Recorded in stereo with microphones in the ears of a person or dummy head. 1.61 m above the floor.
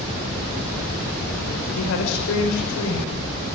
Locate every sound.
1.8 s a woman speaking: 75° left (ahead or behind), 6 m; by 3.2 s 70° left (ahead or behind), 6.5 m